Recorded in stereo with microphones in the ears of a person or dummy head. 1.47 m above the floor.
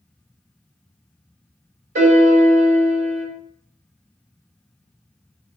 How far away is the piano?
About 1.2 m.